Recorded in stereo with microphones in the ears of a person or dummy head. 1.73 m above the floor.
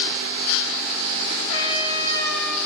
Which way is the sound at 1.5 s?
70° left (ahead or behind).